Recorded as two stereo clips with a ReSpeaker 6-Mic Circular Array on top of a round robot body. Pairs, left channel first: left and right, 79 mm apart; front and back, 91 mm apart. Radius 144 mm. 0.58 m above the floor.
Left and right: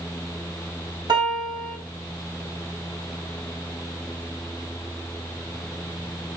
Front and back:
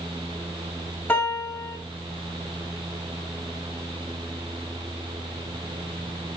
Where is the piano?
70° right, 0.9 m.